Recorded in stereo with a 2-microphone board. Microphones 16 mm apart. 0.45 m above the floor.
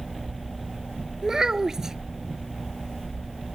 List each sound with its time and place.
1.2 s a child speaking: 35° right (ahead or behind)